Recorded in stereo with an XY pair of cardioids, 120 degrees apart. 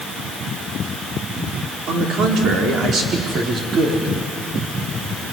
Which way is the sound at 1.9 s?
65° right.